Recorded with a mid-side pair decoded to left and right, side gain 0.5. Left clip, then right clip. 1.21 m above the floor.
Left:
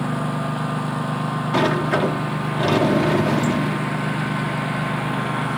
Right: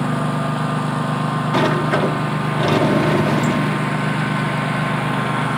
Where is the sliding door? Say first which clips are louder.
Right 1 dB; 10° right.